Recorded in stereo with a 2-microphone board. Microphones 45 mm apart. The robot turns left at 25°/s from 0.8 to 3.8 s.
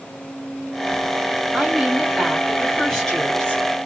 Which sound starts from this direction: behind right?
A woman speaking, at 1.5 s.